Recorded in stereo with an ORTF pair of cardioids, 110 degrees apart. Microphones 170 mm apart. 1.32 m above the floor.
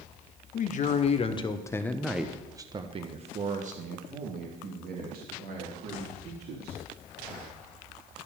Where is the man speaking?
50° left, 1.2 m; by 6.8 s 70° right, 3 m.